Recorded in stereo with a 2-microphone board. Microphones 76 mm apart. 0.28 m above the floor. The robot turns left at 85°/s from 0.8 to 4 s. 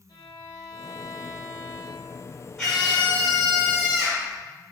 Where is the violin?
75° left, 1.3 m; by 2.2 s 45° right, 1.3 m.